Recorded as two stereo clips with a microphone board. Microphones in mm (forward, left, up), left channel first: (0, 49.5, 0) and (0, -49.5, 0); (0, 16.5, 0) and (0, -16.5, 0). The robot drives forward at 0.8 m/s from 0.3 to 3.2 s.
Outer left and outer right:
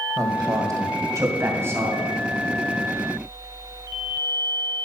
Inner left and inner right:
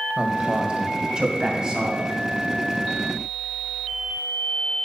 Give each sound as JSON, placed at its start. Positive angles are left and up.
{"t": 0.2, "sound": "a man speaking", "side_deg": -40, "distance_m": 1.8}